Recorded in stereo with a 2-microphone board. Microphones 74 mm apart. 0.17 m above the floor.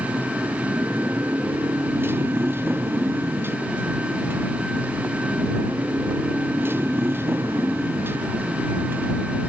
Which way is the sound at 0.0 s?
30° right (ahead or behind).